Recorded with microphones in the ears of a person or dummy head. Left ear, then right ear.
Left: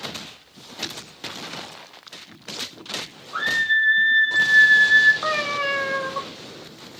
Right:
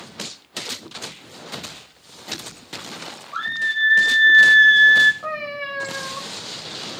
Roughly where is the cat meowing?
Left.